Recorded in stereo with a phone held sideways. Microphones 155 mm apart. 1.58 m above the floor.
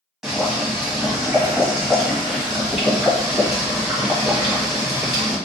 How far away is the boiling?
About 1.3 m.